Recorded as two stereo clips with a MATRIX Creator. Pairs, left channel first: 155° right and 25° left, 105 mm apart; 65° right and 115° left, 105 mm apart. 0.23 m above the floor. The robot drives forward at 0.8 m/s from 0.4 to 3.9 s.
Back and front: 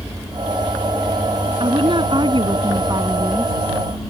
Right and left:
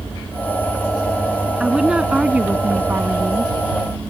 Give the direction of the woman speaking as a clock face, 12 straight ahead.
11 o'clock.